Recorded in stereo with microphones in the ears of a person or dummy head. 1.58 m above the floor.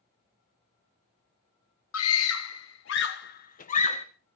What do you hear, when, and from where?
1.9 s a scream: 85° left, 1.7 m; by 4.0 s 30° left (ahead or behind), 1.5 m